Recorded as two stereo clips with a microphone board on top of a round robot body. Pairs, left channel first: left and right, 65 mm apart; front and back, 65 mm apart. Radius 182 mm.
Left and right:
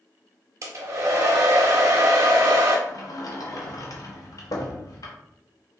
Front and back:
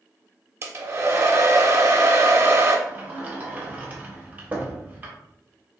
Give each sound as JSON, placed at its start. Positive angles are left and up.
{"t": 0.6, "sound": "a hair dryer", "azimuth_deg": -130, "distance_m": 0.7}
{"t": 2.9, "sound": "a sliding door", "azimuth_deg": 115, "distance_m": 0.8}